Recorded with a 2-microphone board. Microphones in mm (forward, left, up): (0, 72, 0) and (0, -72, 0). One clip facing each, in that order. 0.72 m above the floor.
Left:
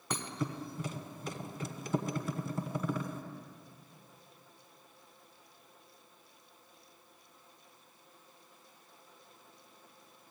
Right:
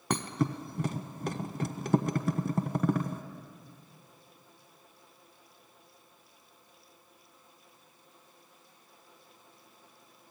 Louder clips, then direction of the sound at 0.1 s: Right 7 dB; 65° right (ahead or behind).